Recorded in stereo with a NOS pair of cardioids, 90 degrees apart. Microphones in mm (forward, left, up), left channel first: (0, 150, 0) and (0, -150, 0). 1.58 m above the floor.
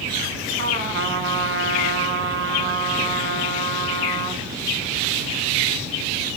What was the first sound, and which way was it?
A trumpet, 50° right.